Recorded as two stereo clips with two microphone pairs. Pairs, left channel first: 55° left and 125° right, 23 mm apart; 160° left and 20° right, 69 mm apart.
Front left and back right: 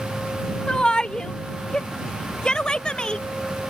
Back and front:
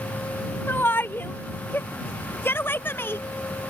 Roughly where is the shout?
Left.